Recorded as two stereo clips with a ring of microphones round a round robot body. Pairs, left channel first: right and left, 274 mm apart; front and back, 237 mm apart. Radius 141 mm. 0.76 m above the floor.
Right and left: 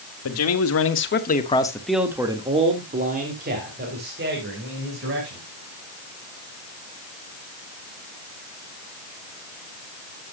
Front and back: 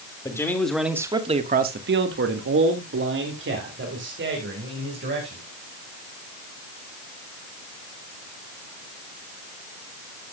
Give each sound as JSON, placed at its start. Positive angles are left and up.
{"t": 0.2, "sound": "a man speaking", "azimuth_deg": -75, "distance_m": 1.7}